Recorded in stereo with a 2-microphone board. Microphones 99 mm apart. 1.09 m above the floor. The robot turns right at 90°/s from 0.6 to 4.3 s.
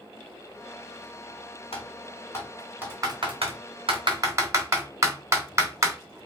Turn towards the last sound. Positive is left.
turn(degrees=-30)  # may be behind; listen again after turning